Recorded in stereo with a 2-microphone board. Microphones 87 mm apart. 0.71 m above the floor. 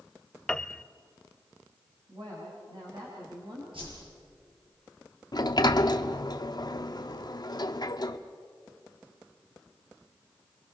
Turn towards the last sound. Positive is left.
turn(degrees=50)  # may be behind; listen again after turning